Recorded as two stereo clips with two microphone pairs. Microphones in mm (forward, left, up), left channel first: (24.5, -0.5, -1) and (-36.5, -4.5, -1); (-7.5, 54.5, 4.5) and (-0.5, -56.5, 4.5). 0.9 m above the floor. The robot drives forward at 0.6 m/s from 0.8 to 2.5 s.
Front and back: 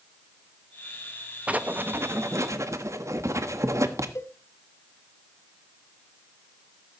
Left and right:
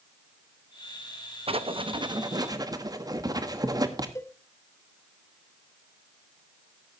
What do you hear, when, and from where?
1.5 s writing: 110° right, 0.8 m; by 4.0 s 140° right, 1.1 m
4.2 s a cowbell: 35° left, 1.0 m